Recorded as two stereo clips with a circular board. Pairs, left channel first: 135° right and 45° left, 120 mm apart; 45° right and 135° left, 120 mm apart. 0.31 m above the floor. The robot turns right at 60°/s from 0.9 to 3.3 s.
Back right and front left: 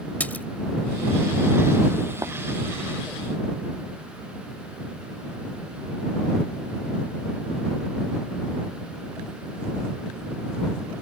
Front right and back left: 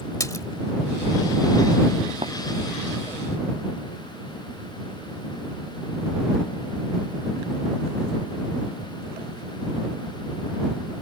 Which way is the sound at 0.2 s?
75° right.